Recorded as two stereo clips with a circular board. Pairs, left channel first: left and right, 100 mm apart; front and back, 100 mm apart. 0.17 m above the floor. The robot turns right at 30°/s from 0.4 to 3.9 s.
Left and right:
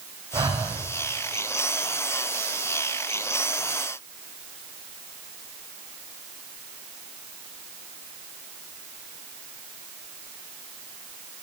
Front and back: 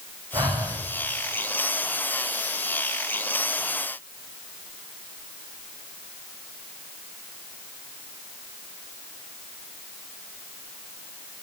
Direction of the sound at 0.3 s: 130° right.